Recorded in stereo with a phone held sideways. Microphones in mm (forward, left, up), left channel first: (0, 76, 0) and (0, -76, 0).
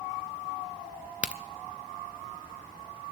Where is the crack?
10° right (ahead or behind), 0.7 m.